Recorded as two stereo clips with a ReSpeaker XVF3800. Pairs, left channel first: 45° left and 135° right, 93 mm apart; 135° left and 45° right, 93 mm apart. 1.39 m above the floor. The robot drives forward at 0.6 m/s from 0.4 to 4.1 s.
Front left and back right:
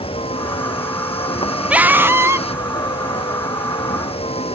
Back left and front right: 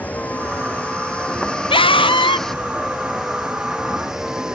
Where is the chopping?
I don't hear chopping.